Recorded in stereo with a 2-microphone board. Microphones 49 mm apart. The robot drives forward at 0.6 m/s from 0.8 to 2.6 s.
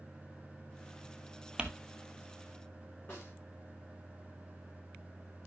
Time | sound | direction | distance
1.6 | crumpling | 20° right (ahead or behind) | 1.1 m
3.1 | a snare drum | 40° left (ahead or behind) | 4.5 m